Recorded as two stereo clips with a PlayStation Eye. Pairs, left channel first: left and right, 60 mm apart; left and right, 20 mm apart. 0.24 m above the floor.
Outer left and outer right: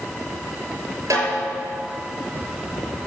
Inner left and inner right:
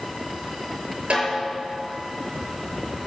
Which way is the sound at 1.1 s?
60° right (ahead or behind).